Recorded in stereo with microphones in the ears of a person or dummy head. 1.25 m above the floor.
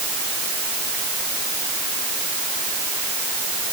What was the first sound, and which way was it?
Only background noise.